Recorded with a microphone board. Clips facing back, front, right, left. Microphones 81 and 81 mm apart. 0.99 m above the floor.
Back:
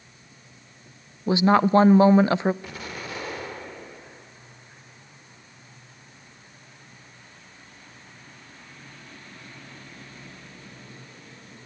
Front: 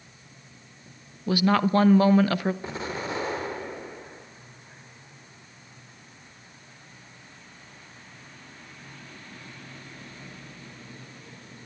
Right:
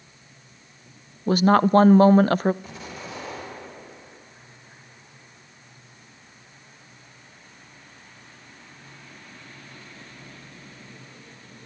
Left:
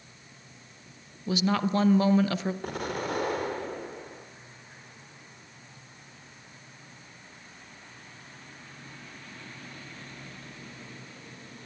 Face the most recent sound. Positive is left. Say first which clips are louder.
# front 4 dB, left 6 dB
turn(degrees=60)